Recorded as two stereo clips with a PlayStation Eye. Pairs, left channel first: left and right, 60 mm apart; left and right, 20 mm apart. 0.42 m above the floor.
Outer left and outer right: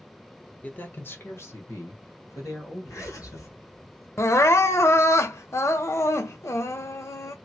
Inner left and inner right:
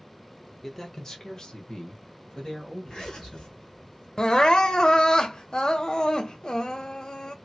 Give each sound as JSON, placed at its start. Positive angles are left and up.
{"t": 0.6, "sound": "a man speaking", "side_deg": 25, "distance_m": 0.8}
{"t": 2.9, "sound": "a zipper", "side_deg": 70, "distance_m": 1.7}
{"t": 4.2, "sound": "crying", "side_deg": 50, "distance_m": 0.6}